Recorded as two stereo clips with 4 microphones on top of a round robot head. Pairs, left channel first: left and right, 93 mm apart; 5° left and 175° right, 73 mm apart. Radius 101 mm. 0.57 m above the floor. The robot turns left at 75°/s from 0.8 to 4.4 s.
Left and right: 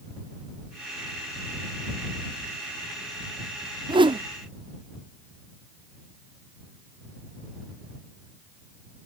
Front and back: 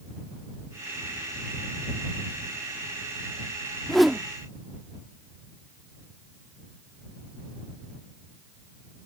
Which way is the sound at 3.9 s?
80° right.